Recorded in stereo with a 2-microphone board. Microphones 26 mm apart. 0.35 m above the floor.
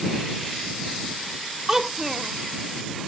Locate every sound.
1.7 s a child speaking: 20° right (ahead or behind)